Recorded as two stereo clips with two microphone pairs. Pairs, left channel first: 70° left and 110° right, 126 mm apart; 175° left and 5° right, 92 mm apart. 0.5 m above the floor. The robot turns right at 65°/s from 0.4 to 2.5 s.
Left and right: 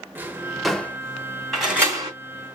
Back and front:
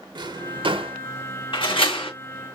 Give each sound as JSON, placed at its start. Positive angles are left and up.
{"t": 0.1, "sound": "a drawer", "azimuth_deg": -35, "distance_m": 0.7}
{"t": 1.5, "sound": "a door slam", "azimuth_deg": 155, "distance_m": 2.5}